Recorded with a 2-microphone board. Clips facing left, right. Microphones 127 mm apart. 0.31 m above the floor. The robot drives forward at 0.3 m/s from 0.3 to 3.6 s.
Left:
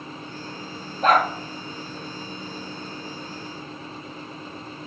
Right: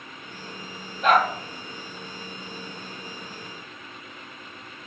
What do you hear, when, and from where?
1.0 s a dog barking: 35° left (ahead or behind), 2.5 m